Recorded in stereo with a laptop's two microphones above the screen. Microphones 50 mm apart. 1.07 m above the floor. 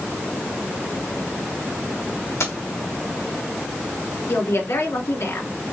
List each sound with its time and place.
2.4 s keys jangling: 80° left, 3 m
4.3 s a woman speaking: 70° left (ahead or behind), 3 m